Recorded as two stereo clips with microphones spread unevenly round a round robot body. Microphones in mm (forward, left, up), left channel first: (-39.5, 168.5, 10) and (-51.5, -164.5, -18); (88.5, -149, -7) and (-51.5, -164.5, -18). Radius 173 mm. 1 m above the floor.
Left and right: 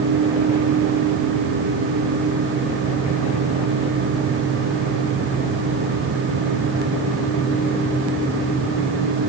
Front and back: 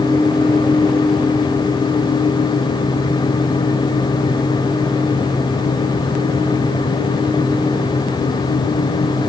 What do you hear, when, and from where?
Only background noise.